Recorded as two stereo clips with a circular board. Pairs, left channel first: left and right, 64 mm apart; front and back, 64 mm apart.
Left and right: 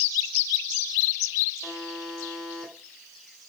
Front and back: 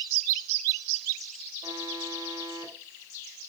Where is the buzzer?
175° left, 8.5 m.